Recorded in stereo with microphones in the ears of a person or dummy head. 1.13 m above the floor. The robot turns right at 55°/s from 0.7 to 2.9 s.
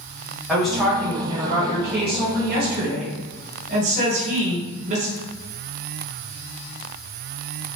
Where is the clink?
No clink in this recording.